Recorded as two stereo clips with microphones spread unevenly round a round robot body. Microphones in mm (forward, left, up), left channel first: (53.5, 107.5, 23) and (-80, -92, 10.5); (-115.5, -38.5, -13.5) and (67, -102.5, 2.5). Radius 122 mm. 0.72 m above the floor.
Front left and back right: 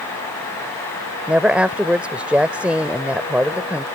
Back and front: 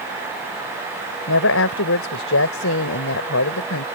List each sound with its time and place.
1.3 s a woman speaking: 150° left